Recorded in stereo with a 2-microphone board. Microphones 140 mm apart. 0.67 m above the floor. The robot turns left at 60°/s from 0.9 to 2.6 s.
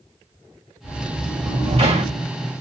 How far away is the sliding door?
About 2.0 m.